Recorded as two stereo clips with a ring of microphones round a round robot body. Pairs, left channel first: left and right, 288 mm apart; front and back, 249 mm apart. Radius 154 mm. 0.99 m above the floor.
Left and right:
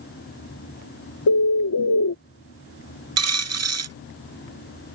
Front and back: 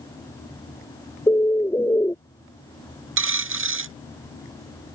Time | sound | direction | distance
1.3 | a bird | 80° left | ?
3.2 | a dropped coin | 130° right | ?